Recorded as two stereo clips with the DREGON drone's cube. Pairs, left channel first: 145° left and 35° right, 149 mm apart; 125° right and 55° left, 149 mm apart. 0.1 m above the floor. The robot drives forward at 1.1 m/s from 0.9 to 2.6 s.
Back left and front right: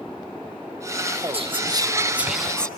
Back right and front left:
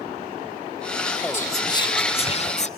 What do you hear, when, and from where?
1.3 s whispering: 55° right, 1.5 m; by 2.7 s 130° right, 1.6 m